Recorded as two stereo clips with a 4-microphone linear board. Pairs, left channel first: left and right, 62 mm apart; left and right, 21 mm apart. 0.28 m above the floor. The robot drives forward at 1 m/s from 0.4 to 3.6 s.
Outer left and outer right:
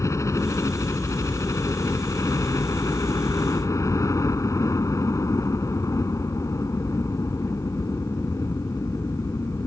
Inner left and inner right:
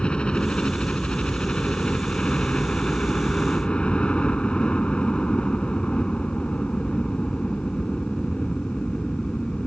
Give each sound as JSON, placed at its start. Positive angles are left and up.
{"t": 0.0, "sound": "a helicopter", "side_deg": 55}